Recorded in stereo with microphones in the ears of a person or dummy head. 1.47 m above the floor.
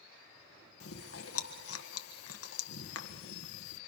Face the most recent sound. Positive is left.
turn(degrees=75)  # may be behind; listen again after turning